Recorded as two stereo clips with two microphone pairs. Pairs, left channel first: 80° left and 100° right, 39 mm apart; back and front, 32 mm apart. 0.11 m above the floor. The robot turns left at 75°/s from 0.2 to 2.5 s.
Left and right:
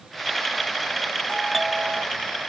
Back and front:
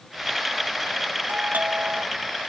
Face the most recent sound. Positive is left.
turn(degrees=-80)